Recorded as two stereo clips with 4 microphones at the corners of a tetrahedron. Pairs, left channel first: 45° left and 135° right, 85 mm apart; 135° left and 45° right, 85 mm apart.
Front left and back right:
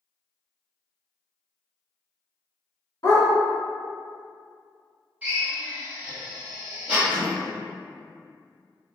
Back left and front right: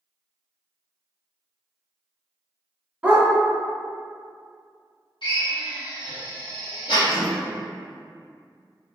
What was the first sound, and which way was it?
A dog barking, 25° left.